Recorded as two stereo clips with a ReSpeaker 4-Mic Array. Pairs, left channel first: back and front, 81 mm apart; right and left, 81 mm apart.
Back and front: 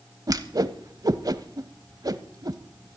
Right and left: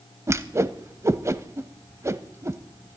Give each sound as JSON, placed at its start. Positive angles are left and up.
{"t": 0.3, "sound": "a whoosh", "azimuth_deg": 35, "distance_m": 0.7}